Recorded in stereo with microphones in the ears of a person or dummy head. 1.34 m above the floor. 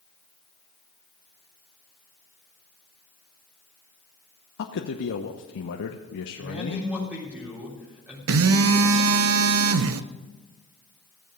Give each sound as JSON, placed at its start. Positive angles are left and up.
{"t": 4.6, "sound": "a man speaking", "side_deg": 65, "distance_m": 0.9}
{"t": 6.4, "sound": "a man speaking", "side_deg": -10, "distance_m": 3.5}
{"t": 8.3, "sound": "a phone buzzing", "side_deg": -70, "distance_m": 0.6}